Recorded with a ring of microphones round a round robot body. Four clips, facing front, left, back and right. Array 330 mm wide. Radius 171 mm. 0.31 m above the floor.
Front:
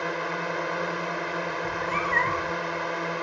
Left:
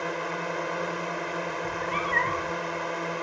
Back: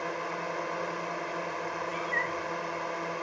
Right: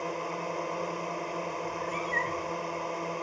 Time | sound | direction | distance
0.0 | a drone | 30° left | ?
1.6 | a cat meowing | 30° left | ?